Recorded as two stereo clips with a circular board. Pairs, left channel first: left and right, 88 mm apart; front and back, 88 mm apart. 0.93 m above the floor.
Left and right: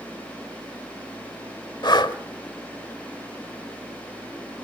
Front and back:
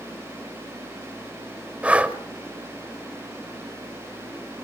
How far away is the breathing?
About 1.0 m.